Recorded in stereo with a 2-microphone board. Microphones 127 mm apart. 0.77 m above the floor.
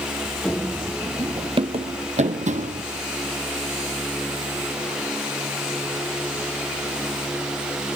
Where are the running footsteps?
5° left (ahead or behind), 1.3 m; by 2.8 s 65° right (ahead or behind), 1.8 m.